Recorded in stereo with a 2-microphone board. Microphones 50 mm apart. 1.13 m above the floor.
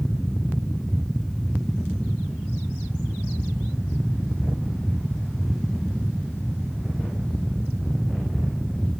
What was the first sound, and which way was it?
Only background noise.